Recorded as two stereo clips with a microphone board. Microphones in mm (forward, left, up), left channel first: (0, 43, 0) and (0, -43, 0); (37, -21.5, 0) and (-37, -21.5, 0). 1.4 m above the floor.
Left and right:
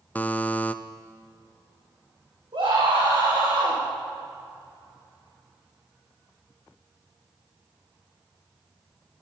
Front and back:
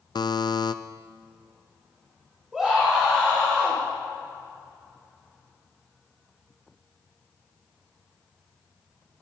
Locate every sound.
0.1 s a buzzer: 20° left, 0.5 m
2.5 s a scream: 95° right, 4 m